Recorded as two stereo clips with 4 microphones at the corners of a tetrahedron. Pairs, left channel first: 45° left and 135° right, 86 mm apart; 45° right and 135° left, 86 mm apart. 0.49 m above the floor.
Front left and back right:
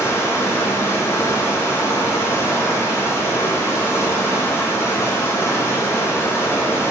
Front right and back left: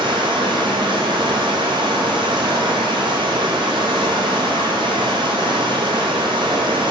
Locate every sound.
0.0 s running water: 105° left, 2.0 m